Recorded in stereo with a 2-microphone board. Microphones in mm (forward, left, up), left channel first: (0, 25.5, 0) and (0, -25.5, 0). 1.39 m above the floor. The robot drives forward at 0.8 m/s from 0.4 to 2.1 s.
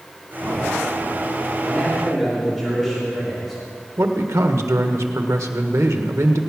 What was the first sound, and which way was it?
A man speaking, 5° right (ahead or behind).